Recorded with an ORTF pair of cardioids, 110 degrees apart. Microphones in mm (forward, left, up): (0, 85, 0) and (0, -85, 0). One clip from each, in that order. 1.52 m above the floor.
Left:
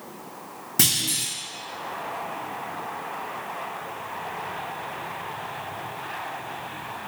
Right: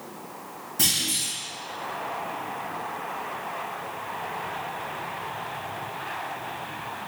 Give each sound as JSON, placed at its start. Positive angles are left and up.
{"t": 0.8, "sound": "a clunk", "azimuth_deg": 60, "distance_m": 1.3}